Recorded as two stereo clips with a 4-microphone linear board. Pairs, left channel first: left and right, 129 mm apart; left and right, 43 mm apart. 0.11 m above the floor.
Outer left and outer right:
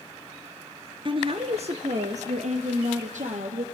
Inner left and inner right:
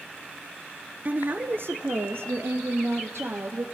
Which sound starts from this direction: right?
A woman speaking, at 1.1 s.